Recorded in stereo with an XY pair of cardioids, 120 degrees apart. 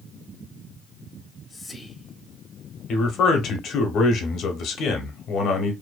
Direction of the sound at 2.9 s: 65° left.